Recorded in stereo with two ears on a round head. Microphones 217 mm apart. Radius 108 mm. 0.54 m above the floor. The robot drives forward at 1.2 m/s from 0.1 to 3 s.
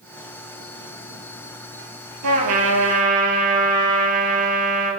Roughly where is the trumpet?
Right.